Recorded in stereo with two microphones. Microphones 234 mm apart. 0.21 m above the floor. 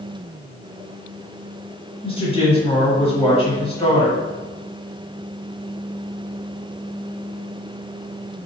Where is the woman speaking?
25° left (ahead or behind), 1.5 m.